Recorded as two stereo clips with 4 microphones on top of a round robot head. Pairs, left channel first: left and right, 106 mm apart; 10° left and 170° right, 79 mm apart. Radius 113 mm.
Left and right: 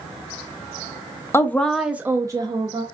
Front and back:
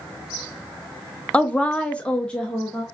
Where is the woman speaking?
70° left, 0.8 m; by 2.8 s 70° right, 1.2 m.